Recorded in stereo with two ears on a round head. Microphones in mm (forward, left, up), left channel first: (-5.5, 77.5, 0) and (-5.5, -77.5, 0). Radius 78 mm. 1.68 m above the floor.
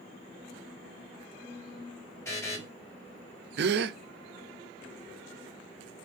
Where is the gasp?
65° right (ahead or behind), 0.7 m.